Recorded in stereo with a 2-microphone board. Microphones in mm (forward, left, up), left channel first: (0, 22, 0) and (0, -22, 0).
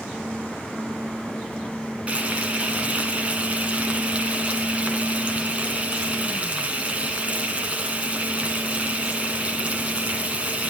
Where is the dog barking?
I don't hear a dog barking.